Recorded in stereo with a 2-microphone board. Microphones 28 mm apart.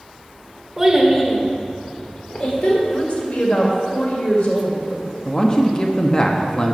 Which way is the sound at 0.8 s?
10° right (ahead or behind).